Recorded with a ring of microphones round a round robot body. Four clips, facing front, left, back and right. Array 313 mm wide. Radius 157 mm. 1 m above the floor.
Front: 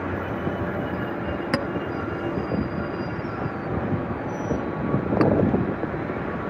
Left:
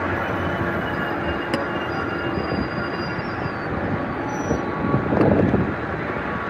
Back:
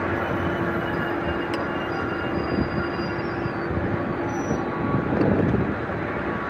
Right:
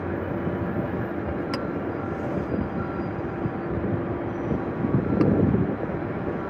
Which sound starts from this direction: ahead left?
A clink, at 1.5 s.